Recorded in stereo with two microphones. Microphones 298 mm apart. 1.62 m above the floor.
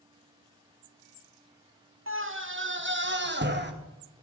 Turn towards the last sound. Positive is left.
turn(degrees=-35)  # may be behind; listen again after turning